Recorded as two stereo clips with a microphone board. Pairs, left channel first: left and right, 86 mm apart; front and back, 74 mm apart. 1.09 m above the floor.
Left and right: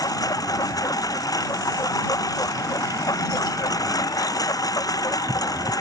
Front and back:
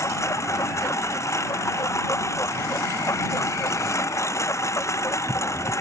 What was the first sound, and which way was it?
A lawn mower, 45° left.